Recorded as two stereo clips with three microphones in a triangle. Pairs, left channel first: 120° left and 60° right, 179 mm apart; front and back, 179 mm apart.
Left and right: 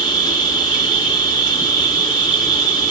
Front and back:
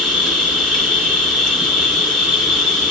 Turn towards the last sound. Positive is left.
turn(degrees=80)